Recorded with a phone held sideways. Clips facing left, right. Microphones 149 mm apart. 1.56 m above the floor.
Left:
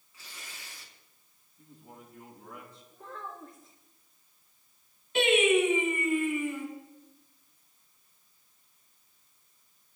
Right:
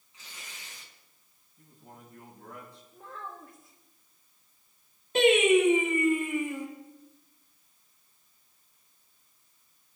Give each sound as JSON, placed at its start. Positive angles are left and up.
{"t": 0.1, "sound": "tearing paper", "side_deg": -25, "distance_m": 4.5}
{"t": 1.6, "sound": "a man speaking", "side_deg": -80, "distance_m": 8.5}
{"t": 2.9, "sound": "a child speaking", "side_deg": -5, "distance_m": 2.5}
{"t": 5.2, "sound": "singing", "side_deg": -45, "distance_m": 6.5}